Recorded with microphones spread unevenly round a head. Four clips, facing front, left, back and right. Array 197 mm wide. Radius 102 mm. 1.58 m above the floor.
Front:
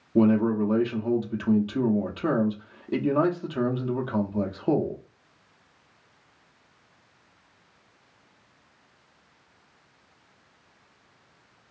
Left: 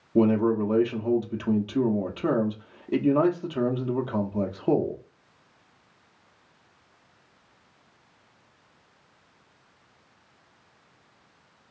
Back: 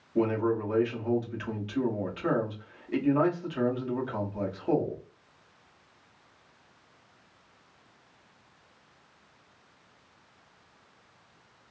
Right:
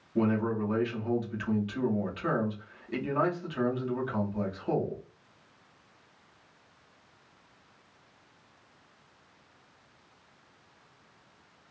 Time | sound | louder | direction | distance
0.1 | a man speaking | left 7 dB, front 6 dB | 50° left | 0.7 m